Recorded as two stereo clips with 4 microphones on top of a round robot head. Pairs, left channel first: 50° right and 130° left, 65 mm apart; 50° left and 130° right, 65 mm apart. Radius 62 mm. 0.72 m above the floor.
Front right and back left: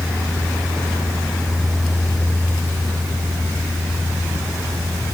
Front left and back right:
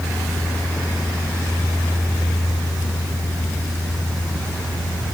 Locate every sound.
Only background noise.